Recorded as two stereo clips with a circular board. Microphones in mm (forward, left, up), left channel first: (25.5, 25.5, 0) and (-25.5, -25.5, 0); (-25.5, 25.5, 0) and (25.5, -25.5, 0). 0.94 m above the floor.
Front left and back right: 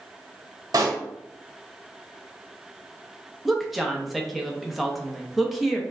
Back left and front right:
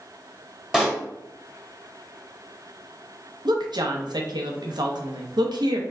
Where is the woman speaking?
45° right, 0.7 m.